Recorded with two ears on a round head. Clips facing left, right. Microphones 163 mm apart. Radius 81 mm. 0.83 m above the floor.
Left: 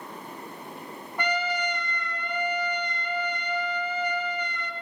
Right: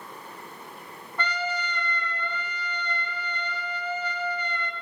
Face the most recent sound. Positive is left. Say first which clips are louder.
# left 3 dB
turn(degrees=10)  # may be behind; listen again after turning